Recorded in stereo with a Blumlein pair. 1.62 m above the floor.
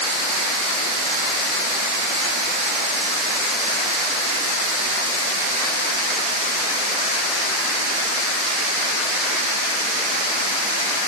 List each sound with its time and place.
Only background noise.